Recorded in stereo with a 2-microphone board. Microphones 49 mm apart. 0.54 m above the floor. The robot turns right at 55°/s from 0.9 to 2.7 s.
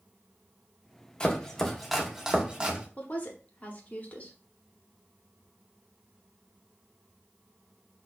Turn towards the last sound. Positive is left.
turn(degrees=35)  # may be behind; listen again after turning